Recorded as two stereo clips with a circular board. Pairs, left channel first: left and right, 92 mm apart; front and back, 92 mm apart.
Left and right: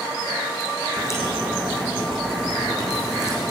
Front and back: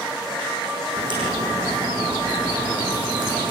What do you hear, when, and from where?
1.0 s a crack: 145° left, 7.5 m